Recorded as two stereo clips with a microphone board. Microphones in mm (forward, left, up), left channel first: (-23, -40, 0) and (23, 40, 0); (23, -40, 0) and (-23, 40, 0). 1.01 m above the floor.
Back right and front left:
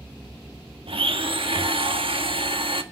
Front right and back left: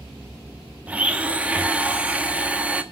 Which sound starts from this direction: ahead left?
A blender, at 0.9 s.